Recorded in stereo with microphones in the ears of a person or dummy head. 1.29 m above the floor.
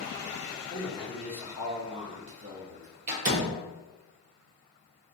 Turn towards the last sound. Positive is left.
turn(degrees=-45)  # may be behind; listen again after turning